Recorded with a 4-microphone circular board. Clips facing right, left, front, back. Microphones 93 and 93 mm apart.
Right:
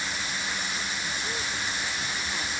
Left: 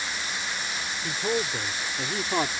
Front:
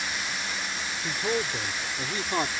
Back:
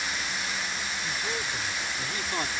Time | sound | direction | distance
1.0 | a man speaking | 50° left | ?